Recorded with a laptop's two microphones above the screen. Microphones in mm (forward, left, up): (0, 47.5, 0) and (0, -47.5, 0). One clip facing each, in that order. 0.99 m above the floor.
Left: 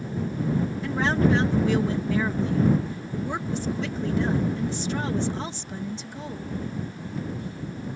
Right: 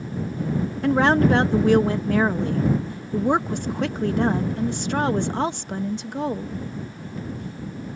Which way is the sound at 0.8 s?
60° right (ahead or behind).